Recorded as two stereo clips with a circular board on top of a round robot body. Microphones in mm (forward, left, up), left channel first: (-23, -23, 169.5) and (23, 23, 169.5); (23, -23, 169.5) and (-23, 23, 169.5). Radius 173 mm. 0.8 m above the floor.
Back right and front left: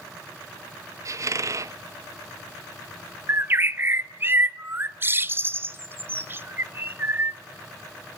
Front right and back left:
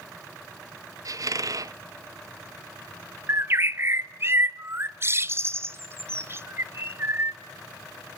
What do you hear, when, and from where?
1.1 s a squeak: 95° left, 0.7 m
3.3 s a bird: 95° left, 1.3 m